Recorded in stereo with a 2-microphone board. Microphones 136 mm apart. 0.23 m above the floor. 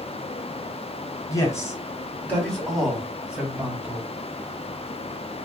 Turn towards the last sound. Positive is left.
turn(degrees=-20)  # may be behind; listen again after turning